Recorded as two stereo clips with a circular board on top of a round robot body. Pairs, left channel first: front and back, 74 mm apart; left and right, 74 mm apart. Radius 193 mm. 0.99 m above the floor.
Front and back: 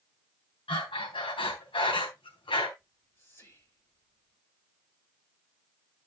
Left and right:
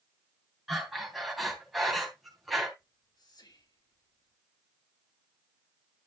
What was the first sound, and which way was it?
Breathing, straight ahead.